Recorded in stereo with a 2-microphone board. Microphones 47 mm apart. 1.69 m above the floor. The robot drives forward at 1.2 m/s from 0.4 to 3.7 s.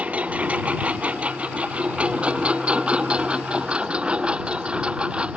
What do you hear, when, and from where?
0.0 s a lawn mower: 30° right (ahead or behind); by 5.4 s 20° right (ahead or behind)